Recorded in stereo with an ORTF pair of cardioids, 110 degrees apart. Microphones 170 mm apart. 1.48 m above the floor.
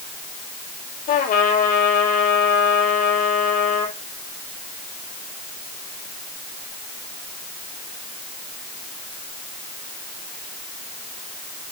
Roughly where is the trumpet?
Ahead left.